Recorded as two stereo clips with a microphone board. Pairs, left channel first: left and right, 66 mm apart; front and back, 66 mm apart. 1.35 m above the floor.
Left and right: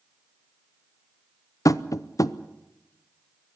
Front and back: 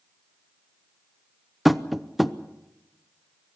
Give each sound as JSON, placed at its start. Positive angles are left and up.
{"t": 1.6, "sound": "tapping", "azimuth_deg": 90, "distance_m": 0.6}